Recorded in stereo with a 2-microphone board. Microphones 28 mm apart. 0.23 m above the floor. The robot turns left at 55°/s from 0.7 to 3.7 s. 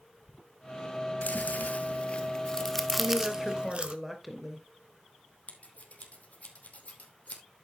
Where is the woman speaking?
140° right, 3 m; by 4.7 s straight behind, 3 m.